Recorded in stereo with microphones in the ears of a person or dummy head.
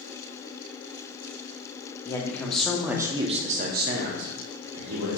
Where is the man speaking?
20° left (ahead or behind), 0.9 m; by 5.2 s 85° right, 1.2 m.